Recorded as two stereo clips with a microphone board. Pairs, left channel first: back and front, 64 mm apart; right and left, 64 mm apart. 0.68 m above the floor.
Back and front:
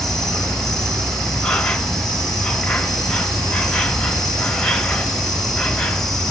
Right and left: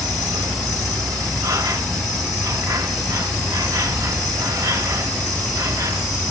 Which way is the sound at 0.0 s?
100° left.